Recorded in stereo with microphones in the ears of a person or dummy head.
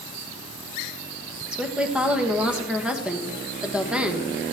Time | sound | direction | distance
1.5 | a woman speaking | 5° right (ahead or behind) | 1.2 m